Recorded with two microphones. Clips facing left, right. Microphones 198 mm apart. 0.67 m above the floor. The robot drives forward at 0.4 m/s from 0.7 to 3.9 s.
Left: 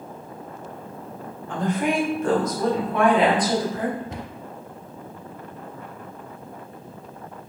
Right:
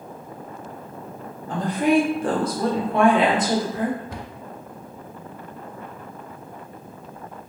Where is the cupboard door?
20° left (ahead or behind), 0.5 m.